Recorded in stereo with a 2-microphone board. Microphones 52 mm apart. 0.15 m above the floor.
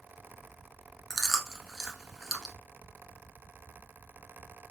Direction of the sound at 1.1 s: 5° left (ahead or behind).